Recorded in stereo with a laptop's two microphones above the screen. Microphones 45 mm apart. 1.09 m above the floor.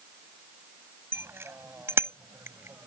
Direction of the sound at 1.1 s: 60° right (ahead or behind).